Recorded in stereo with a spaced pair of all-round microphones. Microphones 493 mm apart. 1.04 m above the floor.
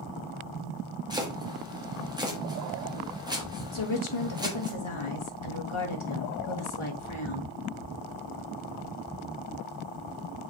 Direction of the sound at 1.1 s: 10° right (ahead or behind).